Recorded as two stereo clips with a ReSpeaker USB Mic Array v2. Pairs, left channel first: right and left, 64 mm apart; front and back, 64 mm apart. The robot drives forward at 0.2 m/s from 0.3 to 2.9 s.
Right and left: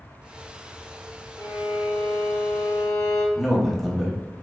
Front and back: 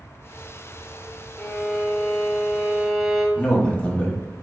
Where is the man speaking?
5° right, 0.5 m.